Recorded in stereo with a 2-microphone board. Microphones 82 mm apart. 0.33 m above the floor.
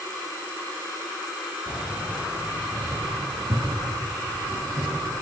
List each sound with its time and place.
1.7 s keys jangling: 5° right (ahead or behind), 3 m; by 5.1 s 50° right (ahead or behind), 6.5 m